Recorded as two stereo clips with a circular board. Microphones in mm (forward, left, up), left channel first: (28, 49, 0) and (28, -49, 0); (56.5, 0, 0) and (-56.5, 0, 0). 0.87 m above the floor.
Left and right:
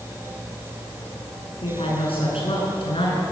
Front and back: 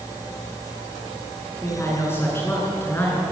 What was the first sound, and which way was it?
A woman speaking, 70° left.